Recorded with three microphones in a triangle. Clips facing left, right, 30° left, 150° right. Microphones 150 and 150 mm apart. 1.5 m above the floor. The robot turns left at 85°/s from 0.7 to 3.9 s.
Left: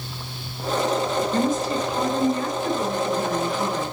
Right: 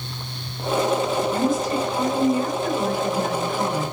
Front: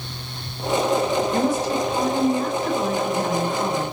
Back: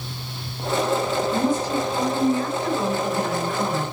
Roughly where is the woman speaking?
Ahead left.